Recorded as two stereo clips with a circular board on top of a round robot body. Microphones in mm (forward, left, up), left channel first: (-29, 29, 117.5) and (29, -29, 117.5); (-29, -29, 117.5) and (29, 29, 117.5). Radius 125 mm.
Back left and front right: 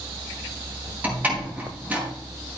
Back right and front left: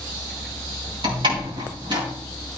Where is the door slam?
25° left, 4.5 m.